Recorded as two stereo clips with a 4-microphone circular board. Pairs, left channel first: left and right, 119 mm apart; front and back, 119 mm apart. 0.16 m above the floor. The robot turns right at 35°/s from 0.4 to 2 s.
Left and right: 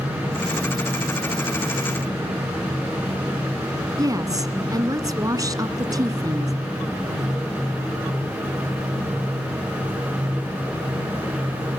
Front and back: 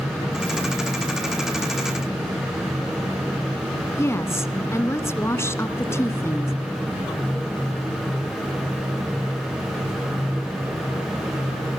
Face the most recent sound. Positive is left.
turn(degrees=-55)